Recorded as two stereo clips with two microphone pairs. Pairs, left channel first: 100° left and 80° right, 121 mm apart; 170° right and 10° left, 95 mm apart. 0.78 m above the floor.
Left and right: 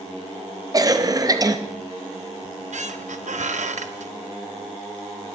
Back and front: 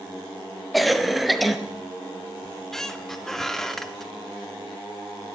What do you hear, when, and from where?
0.7 s a cough: 80° right, 0.6 m
2.4 s a squeak: 85° right, 0.5 m